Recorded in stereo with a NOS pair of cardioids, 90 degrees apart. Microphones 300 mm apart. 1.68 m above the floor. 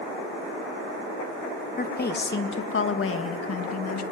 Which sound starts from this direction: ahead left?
A woman speaking, at 1.8 s.